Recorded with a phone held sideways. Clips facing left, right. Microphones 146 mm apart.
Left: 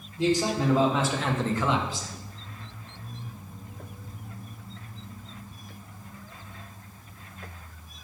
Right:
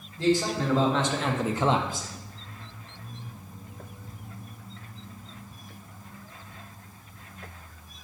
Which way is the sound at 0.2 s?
15° left (ahead or behind).